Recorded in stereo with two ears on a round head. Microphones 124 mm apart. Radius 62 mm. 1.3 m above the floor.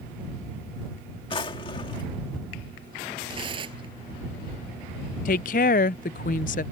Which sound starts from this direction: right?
Tearing paper, at 3.3 s.